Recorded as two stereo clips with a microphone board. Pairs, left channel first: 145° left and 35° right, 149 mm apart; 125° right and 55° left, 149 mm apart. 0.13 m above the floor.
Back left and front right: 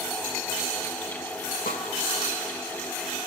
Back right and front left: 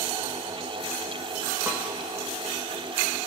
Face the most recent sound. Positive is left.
turn(degrees=130)